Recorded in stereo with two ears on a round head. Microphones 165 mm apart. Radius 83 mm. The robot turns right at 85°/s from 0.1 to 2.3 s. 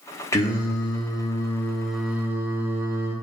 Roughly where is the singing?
Centre.